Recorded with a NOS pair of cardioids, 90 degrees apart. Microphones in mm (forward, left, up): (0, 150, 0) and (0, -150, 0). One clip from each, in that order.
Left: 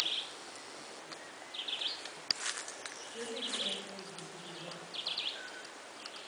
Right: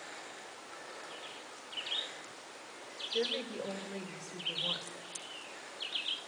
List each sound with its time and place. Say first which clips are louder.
3.1 s a woman speaking: right 3 dB; 55° right, 6 m